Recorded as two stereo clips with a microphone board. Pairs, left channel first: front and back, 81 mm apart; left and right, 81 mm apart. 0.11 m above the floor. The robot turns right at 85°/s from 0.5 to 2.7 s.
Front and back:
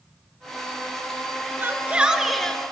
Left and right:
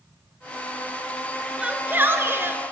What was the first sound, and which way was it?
A shout, 150° right.